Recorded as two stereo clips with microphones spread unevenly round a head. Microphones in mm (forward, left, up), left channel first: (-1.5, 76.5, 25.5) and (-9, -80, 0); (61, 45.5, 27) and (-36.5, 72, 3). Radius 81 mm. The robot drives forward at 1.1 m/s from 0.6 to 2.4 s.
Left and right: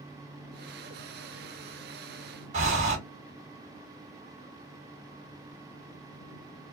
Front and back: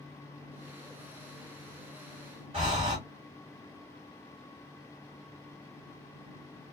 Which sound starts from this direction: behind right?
Breathing, at 2.5 s.